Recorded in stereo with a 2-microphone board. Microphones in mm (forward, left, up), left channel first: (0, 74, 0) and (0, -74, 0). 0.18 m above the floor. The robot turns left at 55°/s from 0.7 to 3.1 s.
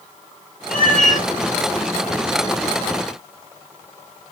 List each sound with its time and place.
0.7 s a cat meowing: 85° left, 2.5 m; by 1.3 s 55° left, 2.5 m